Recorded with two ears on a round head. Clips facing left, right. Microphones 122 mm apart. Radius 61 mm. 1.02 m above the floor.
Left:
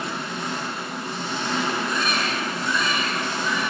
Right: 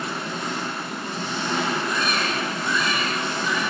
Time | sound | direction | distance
0.0 | an engine running | 10° left (ahead or behind) | 0.8 m
1.9 | a baby crying | 80° left | 1.3 m